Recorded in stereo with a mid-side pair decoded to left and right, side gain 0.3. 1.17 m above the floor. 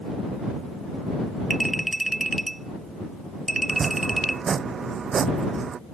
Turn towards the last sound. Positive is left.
turn(degrees=-65)